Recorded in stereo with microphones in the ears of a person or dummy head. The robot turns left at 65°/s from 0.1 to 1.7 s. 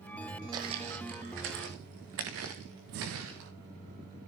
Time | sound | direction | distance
0.5 | footsteps | 20° right (ahead or behind) | 2.5 m
2.9 | breathing | 50° right (ahead or behind) | 0.5 m